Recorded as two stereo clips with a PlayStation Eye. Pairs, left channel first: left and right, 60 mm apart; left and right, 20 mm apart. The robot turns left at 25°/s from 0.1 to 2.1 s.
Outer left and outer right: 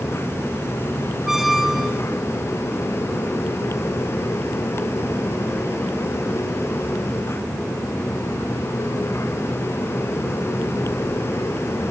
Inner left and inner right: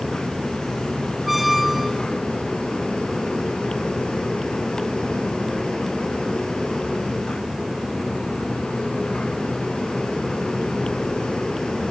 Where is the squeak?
5° right (ahead or behind), 0.5 m; by 2.0 s centre (ahead or behind), 0.5 m.